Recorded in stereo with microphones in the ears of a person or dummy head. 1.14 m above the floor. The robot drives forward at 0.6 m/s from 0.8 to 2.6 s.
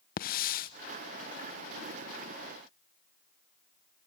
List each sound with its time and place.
0.2 s a hiss: 45° left (ahead or behind), 0.9 m